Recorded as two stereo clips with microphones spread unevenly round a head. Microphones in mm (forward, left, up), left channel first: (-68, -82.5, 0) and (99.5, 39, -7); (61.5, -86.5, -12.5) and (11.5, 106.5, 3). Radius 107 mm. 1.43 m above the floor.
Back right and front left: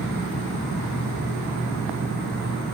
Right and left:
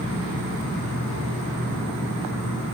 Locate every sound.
0.0 s an insect: 85° left, 4 m